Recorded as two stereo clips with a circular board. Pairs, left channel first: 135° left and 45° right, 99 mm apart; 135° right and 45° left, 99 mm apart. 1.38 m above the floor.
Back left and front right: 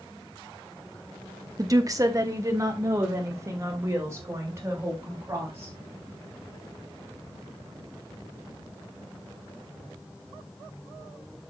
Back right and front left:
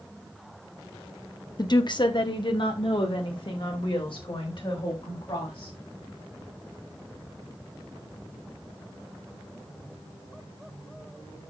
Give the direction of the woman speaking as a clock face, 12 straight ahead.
3 o'clock.